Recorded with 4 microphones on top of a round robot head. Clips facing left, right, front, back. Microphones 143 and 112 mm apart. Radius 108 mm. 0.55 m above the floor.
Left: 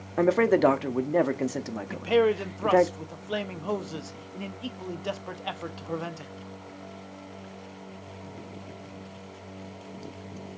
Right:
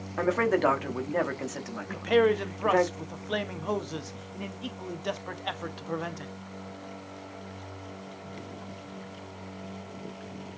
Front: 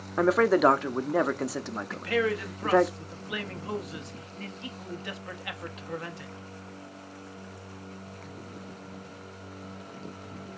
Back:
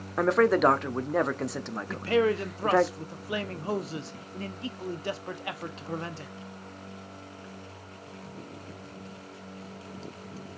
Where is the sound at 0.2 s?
80° left, 0.7 m.